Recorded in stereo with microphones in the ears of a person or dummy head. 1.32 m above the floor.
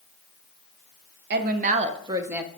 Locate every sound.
1.3 s a woman speaking: 55° right (ahead or behind), 0.7 m; by 2.5 s 5° right (ahead or behind), 0.7 m